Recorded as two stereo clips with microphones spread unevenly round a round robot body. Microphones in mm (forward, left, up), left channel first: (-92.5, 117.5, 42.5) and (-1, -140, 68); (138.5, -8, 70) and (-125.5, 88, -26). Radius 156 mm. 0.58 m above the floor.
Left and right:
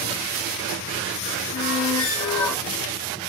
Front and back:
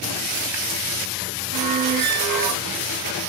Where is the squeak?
150° left, 1.0 m.